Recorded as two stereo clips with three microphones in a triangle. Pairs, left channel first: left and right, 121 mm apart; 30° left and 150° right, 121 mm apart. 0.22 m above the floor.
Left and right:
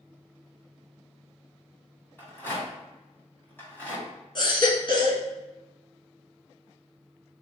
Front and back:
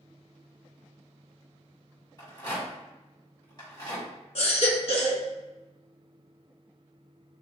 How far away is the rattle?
About 1.9 m.